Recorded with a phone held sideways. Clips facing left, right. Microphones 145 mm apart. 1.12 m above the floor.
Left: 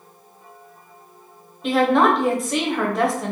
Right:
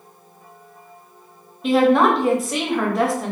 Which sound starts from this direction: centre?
A woman speaking, at 1.6 s.